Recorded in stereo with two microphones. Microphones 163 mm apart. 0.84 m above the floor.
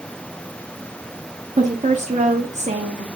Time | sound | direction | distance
1.6 | a woman speaking | 45° right (ahead or behind) | 1.1 m